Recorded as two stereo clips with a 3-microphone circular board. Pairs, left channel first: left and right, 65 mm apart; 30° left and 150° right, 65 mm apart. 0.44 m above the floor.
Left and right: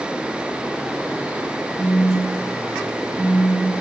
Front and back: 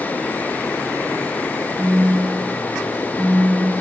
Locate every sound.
1.8 s a phone buzzing: 170° right, 1.3 m